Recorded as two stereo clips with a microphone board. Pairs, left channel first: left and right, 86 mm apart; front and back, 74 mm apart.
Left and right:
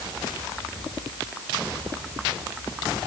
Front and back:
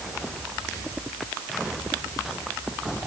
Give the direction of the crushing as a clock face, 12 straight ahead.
No crushing in this recording.